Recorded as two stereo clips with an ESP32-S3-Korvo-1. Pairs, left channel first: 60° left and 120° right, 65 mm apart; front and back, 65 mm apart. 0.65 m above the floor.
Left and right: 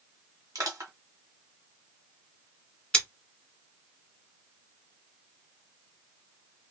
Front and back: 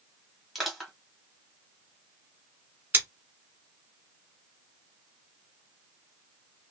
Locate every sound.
0.6 s crushing: 90° right, 1.3 m
2.9 s scissors: 130° left, 1.4 m